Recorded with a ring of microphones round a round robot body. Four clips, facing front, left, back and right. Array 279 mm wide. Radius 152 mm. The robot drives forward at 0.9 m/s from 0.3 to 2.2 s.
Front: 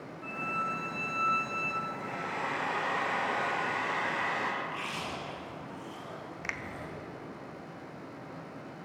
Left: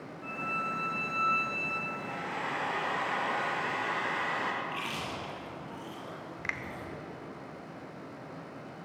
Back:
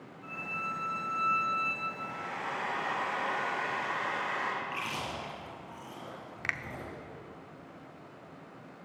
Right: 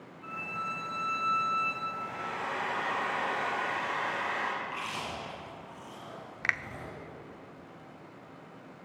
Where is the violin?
25° left, 3 m; by 1.8 s 40° left, 2 m.